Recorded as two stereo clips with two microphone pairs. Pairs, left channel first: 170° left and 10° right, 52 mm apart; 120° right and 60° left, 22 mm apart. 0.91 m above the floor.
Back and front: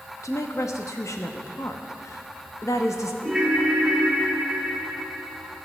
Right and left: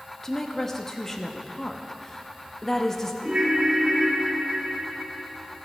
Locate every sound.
0.2 s a woman speaking: 165° left, 0.9 m
3.2 s a ringtone: 75° left, 3.5 m